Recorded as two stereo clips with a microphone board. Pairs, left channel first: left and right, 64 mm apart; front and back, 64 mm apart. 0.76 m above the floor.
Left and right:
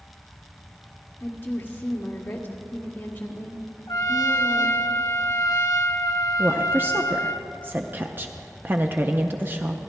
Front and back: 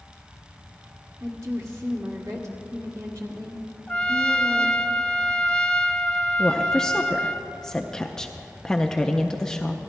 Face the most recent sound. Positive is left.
turn(degrees=-70)